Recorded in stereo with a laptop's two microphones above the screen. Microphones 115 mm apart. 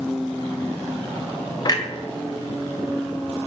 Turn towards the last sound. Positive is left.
turn(degrees=35)  # may be behind; listen again after turning